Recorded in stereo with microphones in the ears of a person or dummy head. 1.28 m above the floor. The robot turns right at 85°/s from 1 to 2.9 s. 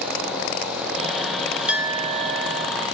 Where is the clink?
Straight behind, 1.4 m; by 2.7 s 95° right, 1.4 m.